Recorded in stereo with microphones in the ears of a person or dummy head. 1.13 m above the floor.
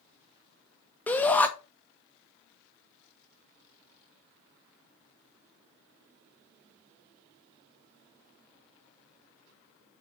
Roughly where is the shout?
Centre.